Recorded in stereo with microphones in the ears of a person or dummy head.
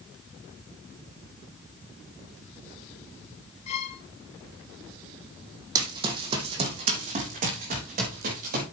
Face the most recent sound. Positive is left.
turn(degrees=-50)  # may be behind; listen again after turning